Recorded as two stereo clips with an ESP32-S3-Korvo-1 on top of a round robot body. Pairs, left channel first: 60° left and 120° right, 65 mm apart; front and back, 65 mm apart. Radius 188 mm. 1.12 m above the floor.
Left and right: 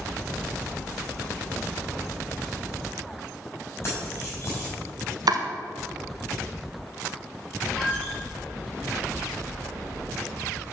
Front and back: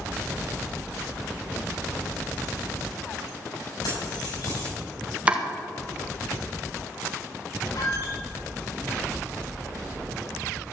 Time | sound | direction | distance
3.8 | keys jangling | 10° left | 5.5 m
5.3 | chopping | 110° right | 1.7 m
7.7 | a squeak | 15° right | 4 m